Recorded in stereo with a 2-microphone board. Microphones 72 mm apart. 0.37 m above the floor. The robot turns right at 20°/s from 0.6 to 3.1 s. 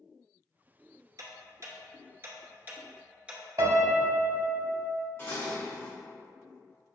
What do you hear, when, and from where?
1.2 s ticking: 55° right (ahead or behind), 0.7 m; by 3.4 s 15° right (ahead or behind), 0.7 m
3.6 s a piano: 60° right (ahead or behind), 0.7 m
5.2 s dishes clattering: 40° left (ahead or behind), 1.6 m